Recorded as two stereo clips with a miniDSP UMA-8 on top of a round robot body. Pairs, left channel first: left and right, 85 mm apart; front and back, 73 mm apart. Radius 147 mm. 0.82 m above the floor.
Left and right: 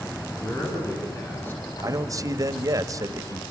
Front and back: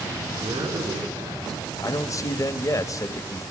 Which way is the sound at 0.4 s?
155° left.